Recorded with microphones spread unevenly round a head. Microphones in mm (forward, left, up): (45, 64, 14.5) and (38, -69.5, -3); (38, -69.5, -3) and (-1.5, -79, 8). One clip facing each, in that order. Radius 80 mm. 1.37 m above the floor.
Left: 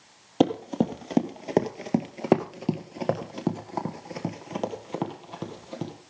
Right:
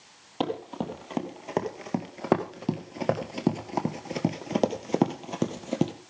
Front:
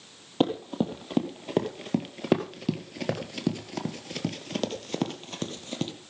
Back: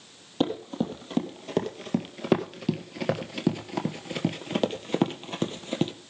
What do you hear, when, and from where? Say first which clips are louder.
0.4 s running footsteps: left 8 dB, front 1 dB; 100° left, 2 m; by 5.9 s 125° right, 2 m